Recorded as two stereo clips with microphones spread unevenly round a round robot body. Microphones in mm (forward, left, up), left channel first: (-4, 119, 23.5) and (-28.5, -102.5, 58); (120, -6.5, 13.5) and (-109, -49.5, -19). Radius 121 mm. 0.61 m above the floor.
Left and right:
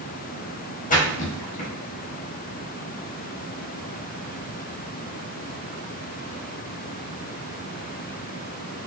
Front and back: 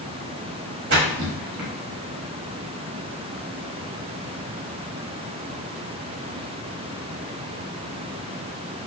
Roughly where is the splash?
Behind left.